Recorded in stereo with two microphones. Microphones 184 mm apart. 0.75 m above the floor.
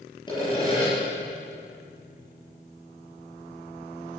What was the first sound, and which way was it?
Sawing, 25° left (ahead or behind).